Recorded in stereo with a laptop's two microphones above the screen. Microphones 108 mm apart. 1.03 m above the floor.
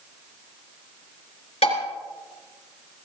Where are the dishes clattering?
80° left, 3 m.